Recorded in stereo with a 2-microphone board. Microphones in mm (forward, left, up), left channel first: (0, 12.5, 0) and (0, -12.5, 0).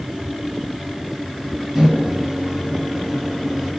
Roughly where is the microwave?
Centre.